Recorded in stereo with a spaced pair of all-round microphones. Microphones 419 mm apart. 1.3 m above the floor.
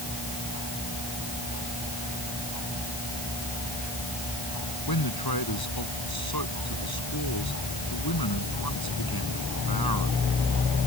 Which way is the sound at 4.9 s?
60° left (ahead or behind).